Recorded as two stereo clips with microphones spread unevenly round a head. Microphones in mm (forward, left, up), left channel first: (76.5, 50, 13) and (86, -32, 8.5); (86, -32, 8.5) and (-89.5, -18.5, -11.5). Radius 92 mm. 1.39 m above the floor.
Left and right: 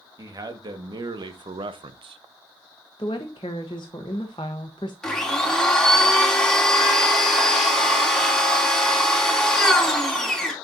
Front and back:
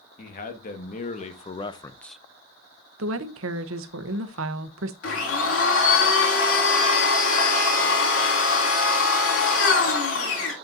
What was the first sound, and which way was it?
A man speaking, 45° right.